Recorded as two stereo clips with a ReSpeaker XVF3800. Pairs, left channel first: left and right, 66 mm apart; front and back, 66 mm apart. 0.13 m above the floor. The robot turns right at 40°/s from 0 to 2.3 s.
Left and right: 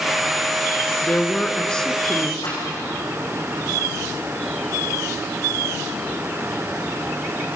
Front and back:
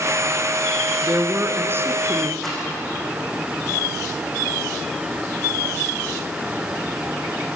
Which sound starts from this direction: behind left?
A woman speaking, at 1.0 s.